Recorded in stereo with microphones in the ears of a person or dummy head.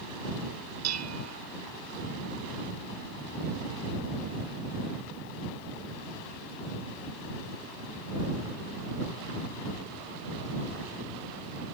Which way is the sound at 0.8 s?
85° right.